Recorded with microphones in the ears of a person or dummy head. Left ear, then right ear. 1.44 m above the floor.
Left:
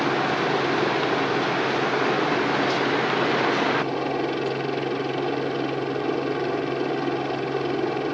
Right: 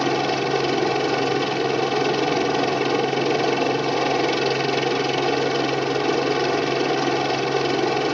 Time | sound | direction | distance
0.0 | a helicopter | 75° right (ahead or behind) | ?